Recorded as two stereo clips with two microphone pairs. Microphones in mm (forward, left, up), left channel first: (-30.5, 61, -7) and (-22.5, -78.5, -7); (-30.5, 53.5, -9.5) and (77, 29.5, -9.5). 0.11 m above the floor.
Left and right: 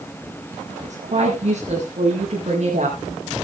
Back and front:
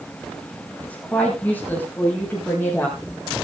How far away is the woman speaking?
About 4.5 m.